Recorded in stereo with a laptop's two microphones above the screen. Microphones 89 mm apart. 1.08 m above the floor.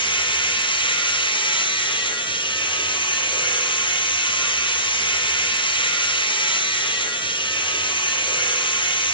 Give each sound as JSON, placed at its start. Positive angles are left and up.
{"t": 0.0, "sound": "a machine running", "side_deg": 65, "distance_m": 4.5}